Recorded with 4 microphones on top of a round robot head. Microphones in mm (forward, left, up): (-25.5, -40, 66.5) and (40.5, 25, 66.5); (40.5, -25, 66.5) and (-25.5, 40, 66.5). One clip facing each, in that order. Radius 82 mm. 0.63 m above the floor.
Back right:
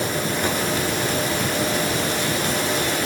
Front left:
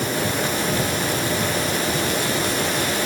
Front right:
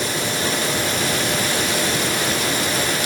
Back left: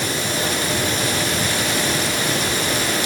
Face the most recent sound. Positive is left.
No sound to turn to.